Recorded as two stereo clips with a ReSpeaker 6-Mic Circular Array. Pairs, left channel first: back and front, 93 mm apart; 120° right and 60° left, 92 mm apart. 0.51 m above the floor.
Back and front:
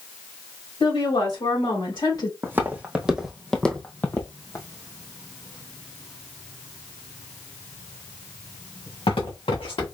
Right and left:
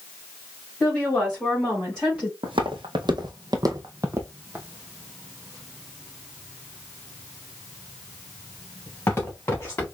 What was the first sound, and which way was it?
A woman speaking, 165° left.